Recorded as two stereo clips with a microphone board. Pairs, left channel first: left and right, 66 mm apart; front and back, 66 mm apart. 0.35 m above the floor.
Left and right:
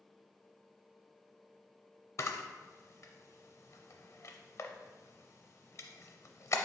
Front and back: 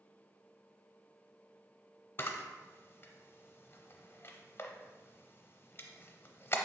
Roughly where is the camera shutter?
Ahead left.